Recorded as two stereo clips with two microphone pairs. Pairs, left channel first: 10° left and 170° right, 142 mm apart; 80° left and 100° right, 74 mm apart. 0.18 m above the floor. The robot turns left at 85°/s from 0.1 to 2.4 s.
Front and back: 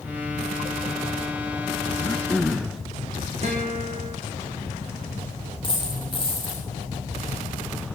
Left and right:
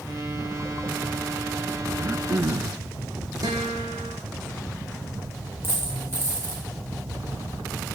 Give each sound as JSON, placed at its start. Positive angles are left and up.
{"t": 2.0, "sound": "throat clearing", "azimuth_deg": -50, "distance_m": 0.7}
{"t": 3.4, "sound": "a guitar", "azimuth_deg": -135, "distance_m": 7.0}
{"t": 5.6, "sound": "a dropped coin", "azimuth_deg": -45, "distance_m": 7.0}